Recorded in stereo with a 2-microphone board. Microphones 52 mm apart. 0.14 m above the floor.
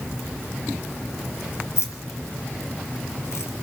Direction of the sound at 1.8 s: 65° left (ahead or behind).